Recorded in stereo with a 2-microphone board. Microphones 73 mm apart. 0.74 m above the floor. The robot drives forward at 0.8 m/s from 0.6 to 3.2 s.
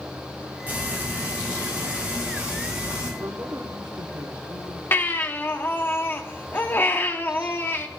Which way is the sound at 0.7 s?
25° right (ahead or behind).